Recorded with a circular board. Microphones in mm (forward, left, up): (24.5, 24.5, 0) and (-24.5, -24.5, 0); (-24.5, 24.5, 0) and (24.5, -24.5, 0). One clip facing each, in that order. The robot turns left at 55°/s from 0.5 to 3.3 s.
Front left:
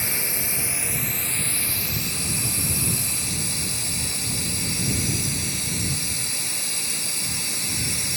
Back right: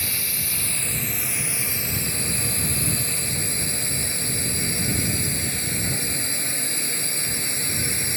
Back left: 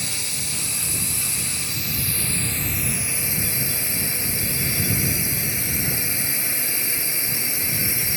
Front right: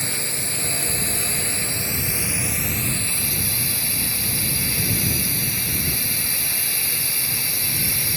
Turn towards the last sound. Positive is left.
turn(degrees=-165)